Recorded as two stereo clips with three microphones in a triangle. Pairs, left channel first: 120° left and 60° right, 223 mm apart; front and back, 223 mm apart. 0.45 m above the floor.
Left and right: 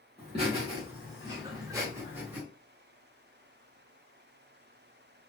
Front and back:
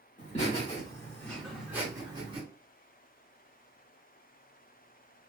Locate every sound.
0.2 s laughter: 20° right, 1.3 m; by 2.4 s 135° right, 1.2 m